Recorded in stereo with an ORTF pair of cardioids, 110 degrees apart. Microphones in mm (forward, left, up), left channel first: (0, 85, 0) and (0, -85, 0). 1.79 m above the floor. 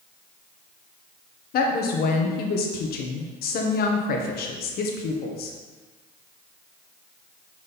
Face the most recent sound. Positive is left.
turn(degrees=65)